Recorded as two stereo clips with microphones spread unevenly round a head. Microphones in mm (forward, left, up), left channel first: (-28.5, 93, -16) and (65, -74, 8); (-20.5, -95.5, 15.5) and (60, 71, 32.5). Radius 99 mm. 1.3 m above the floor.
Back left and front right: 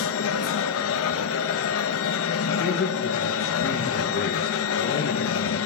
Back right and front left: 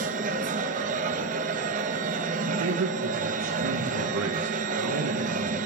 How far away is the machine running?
About 0.8 m.